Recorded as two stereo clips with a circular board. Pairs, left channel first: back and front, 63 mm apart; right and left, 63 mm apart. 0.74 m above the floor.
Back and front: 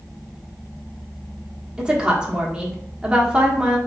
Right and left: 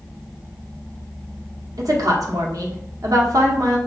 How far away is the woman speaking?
About 1.3 m.